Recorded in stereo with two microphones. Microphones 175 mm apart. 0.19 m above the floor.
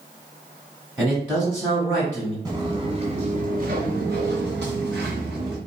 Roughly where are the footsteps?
Right.